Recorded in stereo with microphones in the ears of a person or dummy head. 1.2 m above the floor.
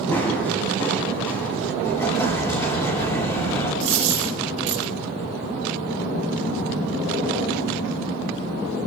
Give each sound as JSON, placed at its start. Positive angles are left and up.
{"t": 0.1, "sound": "running footsteps", "side_deg": 15, "distance_m": 4.5}
{"t": 1.8, "sound": "an explosion", "side_deg": 15, "distance_m": 8.0}
{"t": 3.8, "sound": "a dropped coin", "side_deg": -35, "distance_m": 5.5}